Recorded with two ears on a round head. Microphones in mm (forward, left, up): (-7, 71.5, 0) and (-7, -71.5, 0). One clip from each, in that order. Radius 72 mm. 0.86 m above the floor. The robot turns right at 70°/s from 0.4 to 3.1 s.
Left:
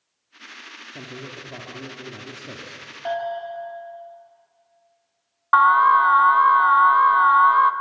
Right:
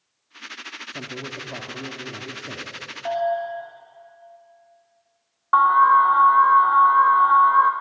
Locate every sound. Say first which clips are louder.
0.9 s a man speaking: right 3 dB; 85° right, 2 m; by 2.8 s 50° left, 2 m
3.0 s a bell: right 3 dB; 40° left (ahead or behind), 6.5 m; by 3.7 s 45° left (ahead or behind), 6.5 m
5.5 s an alarm: even; 50° left (ahead or behind), 0.7 m